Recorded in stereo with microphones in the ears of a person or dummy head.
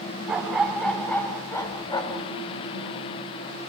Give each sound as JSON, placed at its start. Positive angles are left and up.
{"t": 0.3, "sound": "a dog barking", "side_deg": -10, "distance_m": 1.8}